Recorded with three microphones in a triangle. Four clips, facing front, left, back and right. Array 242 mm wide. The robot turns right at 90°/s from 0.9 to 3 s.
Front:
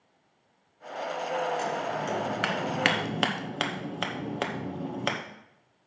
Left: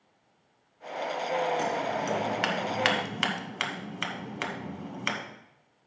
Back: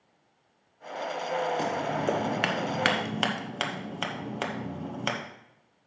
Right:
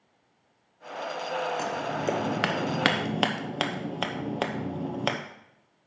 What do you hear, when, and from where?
1.6 s scissors: 175° left, 0.9 m; by 5.2 s 55° right, 0.9 m